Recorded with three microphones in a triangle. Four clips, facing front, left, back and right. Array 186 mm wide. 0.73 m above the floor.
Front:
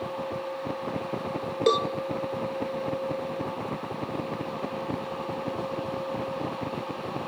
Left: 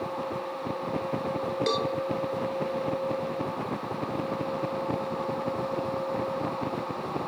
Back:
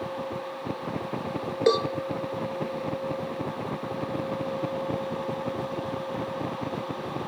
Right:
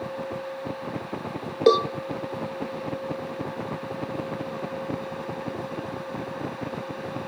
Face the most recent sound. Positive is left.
turn(degrees=-100)